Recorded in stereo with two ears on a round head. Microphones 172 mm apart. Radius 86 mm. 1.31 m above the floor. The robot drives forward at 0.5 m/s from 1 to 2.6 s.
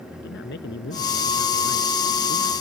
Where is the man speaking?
65° left (ahead or behind); by 2.5 s 60° left (ahead or behind).